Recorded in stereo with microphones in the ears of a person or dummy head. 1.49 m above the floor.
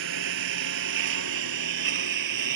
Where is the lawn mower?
75° right (ahead or behind); by 2.6 s 65° right (ahead or behind).